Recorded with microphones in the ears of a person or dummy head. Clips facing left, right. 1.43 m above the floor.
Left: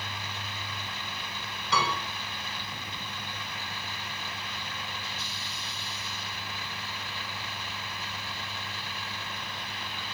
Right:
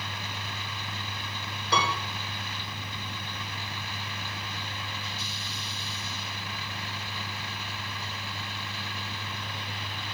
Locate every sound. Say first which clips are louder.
1.7 s a piano: right 1 dB; 30° right (ahead or behind), 3.5 m